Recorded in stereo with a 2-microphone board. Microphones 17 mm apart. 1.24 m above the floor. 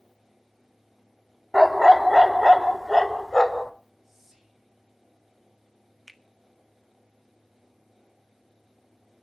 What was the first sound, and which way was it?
A dog barking, centre (ahead or behind).